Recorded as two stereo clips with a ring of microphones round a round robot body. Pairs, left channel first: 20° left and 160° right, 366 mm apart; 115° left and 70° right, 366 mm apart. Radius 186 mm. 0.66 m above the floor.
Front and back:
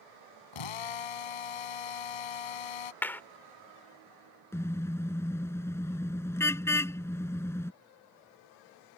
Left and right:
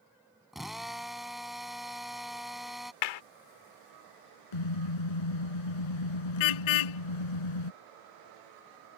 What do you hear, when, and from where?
0.5 s a drill: 20° left
3.0 s a clap: 105° left
4.5 s a car horn: 105° left